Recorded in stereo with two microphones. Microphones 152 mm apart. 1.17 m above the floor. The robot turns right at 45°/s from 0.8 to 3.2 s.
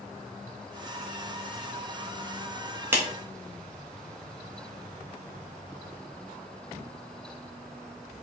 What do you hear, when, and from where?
2.9 s a clap: 15° right (ahead or behind), 1.1 m; by 3.0 s 20° right (ahead or behind), 1.1 m